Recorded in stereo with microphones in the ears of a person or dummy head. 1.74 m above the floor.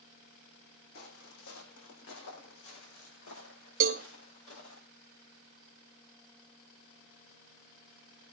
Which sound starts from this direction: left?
Footsteps, at 0.9 s.